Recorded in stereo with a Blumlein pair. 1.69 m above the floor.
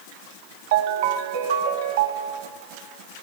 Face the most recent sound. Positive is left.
turn(degrees=-55)